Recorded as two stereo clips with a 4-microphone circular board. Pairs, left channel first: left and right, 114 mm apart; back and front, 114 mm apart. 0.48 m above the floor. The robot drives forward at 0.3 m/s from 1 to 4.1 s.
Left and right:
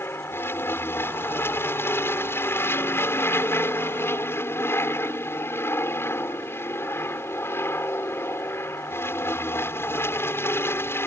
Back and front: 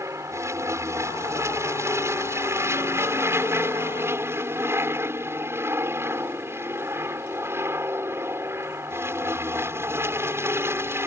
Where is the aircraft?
40° left; by 11.1 s 45° left.